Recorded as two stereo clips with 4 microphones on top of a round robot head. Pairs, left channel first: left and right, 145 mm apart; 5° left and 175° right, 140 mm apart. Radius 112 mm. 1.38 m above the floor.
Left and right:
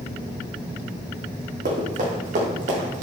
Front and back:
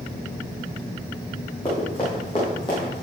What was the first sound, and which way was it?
Running footsteps, 65° right.